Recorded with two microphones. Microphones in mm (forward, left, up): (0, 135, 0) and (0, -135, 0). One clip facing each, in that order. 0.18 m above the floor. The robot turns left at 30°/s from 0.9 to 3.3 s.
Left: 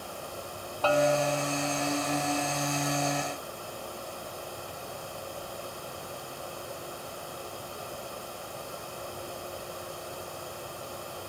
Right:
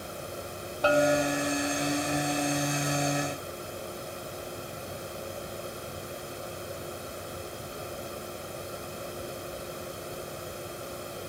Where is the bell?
15° right (ahead or behind), 0.9 m; by 1.5 s 25° right (ahead or behind), 0.9 m.